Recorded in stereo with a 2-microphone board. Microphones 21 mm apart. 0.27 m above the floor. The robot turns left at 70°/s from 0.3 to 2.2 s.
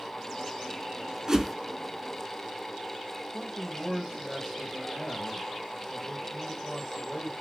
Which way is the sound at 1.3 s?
25° right (ahead or behind).